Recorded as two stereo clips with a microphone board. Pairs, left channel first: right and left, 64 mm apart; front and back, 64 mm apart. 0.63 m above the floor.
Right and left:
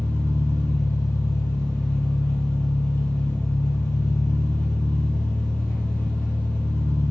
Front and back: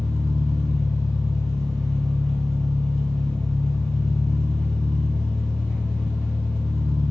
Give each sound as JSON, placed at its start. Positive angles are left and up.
{"t": 0.0, "sound": "an engine running", "azimuth_deg": -85, "distance_m": 0.9}